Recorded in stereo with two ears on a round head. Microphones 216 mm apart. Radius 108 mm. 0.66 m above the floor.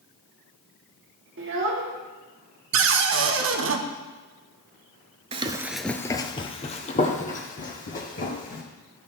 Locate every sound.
1.4 s a child speaking: 50° right (ahead or behind), 1.2 m
2.7 s a cupboard door: 50° right (ahead or behind), 0.7 m
5.3 s running footsteps: 25° right (ahead or behind), 0.6 m; by 8.6 s 35° left (ahead or behind), 3 m